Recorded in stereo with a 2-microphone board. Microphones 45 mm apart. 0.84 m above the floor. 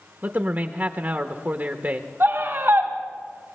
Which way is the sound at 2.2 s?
55° right (ahead or behind).